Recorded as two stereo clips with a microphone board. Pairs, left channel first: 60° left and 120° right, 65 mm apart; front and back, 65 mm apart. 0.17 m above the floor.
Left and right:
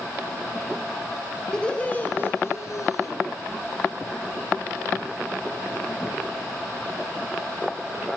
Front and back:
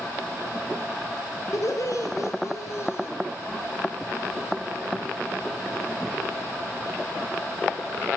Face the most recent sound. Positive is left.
turn(degrees=40)